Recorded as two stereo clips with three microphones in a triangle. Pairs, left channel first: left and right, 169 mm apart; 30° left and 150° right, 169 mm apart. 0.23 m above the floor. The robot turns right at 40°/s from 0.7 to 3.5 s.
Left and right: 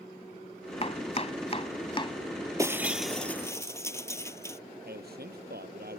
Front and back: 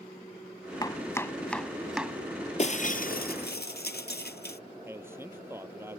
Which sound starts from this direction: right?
A man speaking, at 4.8 s.